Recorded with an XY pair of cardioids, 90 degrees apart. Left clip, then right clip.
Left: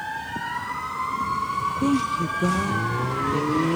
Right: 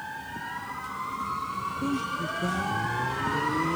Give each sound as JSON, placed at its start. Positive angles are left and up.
{"t": 1.8, "sound": "a woman speaking", "azimuth_deg": 60, "distance_m": 1.0}